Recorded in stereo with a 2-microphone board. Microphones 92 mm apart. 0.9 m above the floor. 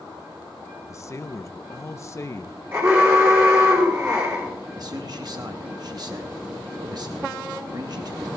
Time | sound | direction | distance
0.9 | a man speaking | 35° left (ahead or behind) | 0.6 m
2.7 | an alarm | 30° right (ahead or behind) | 5.5 m
4.8 | a man speaking | 50° right (ahead or behind) | 0.9 m